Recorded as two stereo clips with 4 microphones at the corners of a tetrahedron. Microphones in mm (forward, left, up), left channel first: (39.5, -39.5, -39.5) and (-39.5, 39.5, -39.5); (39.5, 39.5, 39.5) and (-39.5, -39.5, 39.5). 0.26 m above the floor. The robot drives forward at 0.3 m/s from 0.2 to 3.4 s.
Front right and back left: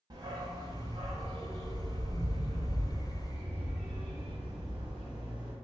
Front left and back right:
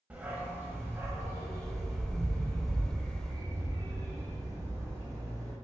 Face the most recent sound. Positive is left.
turn(degrees=170)